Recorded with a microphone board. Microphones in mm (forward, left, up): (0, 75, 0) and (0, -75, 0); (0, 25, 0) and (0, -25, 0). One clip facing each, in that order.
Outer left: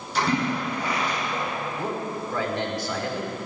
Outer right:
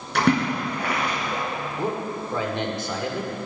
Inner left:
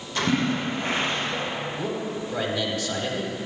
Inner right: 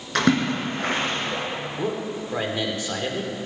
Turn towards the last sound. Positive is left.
turn(degrees=-25)  # may be behind; listen again after turning